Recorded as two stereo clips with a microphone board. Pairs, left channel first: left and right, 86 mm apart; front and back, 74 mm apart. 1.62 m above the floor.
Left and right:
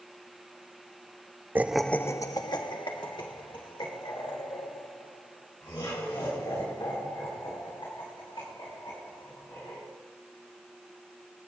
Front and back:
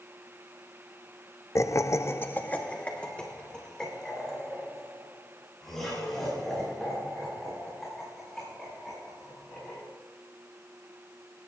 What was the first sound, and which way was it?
Laughter, 30° right.